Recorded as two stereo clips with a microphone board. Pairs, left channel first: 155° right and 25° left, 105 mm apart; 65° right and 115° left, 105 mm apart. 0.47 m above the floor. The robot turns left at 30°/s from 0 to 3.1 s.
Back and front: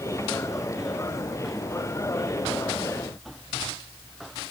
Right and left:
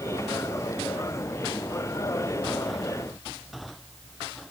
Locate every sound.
Only background noise.